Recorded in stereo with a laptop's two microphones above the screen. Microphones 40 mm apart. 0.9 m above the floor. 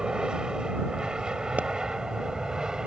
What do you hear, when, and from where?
0.0 s an aircraft: 20° right (ahead or behind)
1.6 s a pop: 45° right (ahead or behind)